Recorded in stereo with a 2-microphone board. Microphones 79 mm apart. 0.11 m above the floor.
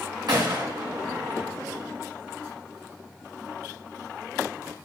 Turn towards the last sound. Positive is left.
turn(degrees=-65)  # may be behind; listen again after turning